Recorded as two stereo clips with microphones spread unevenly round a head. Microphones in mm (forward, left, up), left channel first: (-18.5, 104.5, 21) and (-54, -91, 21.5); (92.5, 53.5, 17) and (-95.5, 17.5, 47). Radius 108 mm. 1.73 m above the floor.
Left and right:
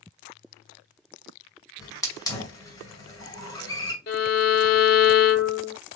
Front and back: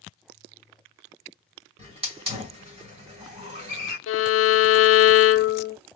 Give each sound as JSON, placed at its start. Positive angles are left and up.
{"t": 1.8, "sound": "a hiss", "azimuth_deg": 150, "distance_m": 2.0}
{"t": 4.1, "sound": "a violin", "azimuth_deg": 30, "distance_m": 0.6}